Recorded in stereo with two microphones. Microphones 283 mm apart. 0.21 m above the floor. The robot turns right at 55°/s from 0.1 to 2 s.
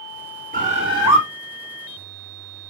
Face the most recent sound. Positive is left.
turn(degrees=40)